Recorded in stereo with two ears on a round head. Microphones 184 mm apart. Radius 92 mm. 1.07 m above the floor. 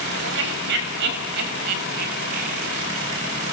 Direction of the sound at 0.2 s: 60° right (ahead or behind).